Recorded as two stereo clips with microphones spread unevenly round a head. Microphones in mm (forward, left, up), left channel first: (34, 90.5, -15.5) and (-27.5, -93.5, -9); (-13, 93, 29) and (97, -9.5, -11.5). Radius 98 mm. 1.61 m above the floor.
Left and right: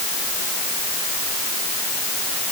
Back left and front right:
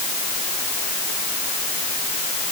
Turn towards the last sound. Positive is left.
No sound to turn to.